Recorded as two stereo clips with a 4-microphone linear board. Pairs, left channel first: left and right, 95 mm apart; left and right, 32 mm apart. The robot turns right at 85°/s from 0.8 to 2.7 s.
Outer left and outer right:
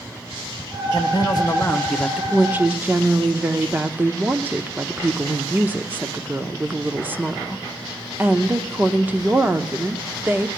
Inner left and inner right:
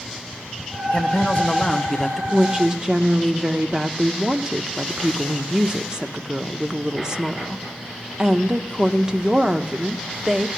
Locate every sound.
0.9 s a man speaking: 80° left, 1.4 m; by 2.2 s 170° right, 1.4 m
2.3 s a woman speaking: 15° right (ahead or behind), 0.7 m; by 10.5 s 20° right (ahead or behind), 0.7 m